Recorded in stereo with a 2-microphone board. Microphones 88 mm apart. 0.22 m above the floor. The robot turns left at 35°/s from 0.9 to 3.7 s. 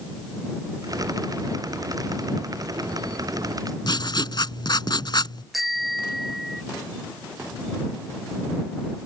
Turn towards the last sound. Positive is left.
turn(degrees=0)  # may be behind; listen again after turning